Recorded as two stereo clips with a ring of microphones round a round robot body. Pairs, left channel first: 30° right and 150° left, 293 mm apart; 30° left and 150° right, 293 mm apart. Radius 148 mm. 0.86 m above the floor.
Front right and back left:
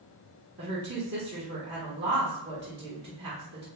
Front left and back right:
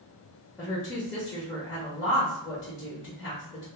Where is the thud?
I don't hear a thud.